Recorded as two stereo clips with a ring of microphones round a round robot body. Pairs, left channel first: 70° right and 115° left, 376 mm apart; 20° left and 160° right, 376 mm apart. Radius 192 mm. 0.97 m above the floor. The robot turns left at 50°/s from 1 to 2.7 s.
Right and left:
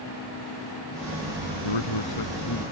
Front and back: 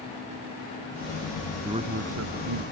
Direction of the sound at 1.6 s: 75° right.